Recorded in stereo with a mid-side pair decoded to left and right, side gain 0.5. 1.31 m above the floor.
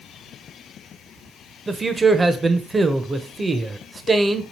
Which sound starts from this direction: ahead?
A man speaking, at 1.7 s.